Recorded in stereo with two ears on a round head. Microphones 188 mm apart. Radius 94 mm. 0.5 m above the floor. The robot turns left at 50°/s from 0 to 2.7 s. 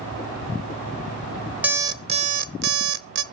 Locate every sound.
1.6 s an alarm clock: 10° right, 0.5 m; by 3.2 s 60° right, 0.5 m